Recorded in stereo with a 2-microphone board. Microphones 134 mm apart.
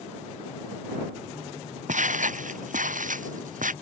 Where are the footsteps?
75° right (ahead or behind); by 3.7 s 90° right.